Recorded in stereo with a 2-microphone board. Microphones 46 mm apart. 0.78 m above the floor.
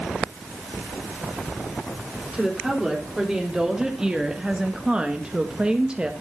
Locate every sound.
2.3 s a woman speaking: 10° right (ahead or behind), 3 m; by 6.1 s 20° right (ahead or behind), 1.0 m